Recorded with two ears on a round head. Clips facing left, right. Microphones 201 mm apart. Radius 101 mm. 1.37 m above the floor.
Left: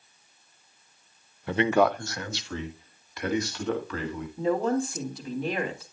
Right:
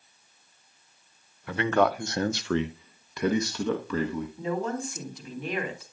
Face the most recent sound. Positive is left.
turn(degrees=30)  # may be behind; listen again after turning